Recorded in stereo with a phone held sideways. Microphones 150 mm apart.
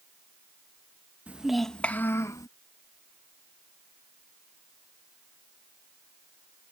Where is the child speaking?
10° right (ahead or behind); by 2.5 s 25° left (ahead or behind).